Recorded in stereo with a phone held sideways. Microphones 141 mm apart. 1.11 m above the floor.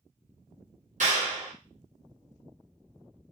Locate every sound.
1.0 s a clap: 60° right (ahead or behind), 1.1 m